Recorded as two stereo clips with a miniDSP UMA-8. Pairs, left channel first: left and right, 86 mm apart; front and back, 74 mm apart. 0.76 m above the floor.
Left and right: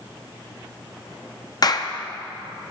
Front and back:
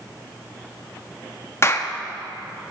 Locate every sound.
1.6 s a clap: 50° left, 0.6 m